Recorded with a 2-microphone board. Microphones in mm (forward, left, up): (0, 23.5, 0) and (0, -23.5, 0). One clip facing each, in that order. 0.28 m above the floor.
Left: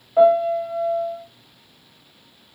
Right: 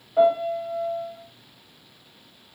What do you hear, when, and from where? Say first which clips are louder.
0.2 s a piano: left 5 dB; 20° left (ahead or behind), 1.2 m